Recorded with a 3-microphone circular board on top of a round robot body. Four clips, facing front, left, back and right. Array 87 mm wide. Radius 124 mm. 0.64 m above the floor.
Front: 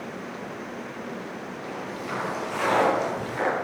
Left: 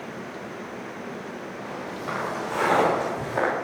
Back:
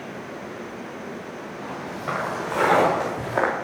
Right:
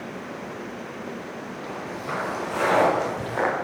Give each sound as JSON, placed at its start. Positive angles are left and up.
{"t": 1.6, "sound": "footsteps", "azimuth_deg": 175, "distance_m": 7.5}